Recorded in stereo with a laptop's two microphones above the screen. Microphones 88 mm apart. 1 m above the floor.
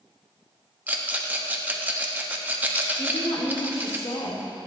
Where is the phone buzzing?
I don't hear a phone buzzing.